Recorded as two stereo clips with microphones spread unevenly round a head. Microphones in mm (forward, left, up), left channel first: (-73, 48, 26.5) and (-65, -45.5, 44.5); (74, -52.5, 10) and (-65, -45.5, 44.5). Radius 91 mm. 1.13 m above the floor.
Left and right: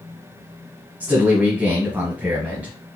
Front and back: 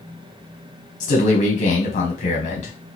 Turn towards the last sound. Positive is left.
turn(degrees=-5)